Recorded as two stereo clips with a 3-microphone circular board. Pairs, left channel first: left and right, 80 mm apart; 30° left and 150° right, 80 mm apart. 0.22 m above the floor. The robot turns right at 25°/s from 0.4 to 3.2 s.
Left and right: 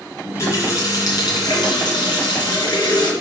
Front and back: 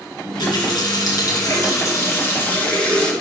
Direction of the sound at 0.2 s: 45° left.